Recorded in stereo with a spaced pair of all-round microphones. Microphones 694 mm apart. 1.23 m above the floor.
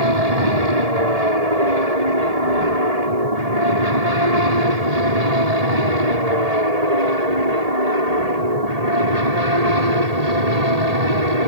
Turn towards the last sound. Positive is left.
turn(degrees=-70)  # may be behind; listen again after turning